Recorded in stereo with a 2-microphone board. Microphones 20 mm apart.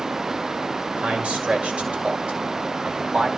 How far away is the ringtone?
I don't hear a ringtone.